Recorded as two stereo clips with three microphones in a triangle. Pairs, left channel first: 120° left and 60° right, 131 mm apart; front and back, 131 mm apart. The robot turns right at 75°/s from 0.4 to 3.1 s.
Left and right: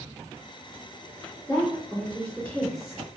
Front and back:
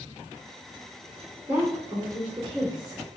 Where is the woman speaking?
115° left, 1.9 m; by 3.0 s 130° right, 1.9 m.